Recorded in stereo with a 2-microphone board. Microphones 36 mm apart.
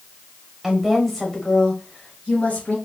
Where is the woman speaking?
5° right (ahead or behind), 1.0 m; by 2.8 s 50° left (ahead or behind), 1.3 m.